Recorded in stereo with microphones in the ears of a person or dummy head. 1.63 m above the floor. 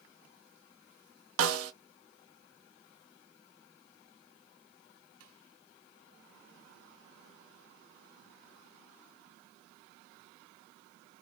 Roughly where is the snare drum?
Right.